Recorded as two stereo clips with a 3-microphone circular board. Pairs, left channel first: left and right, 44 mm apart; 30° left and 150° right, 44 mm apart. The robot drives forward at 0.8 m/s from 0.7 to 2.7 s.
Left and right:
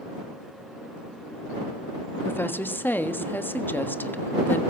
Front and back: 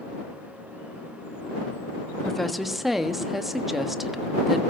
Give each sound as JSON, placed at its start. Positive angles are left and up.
{"t": 2.2, "sound": "a woman speaking", "azimuth_deg": 110, "distance_m": 1.2}